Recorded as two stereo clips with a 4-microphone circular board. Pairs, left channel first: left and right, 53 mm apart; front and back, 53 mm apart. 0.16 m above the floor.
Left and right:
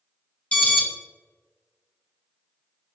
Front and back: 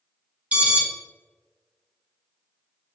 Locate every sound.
0.5 s an alarm: 140° left, 1.3 m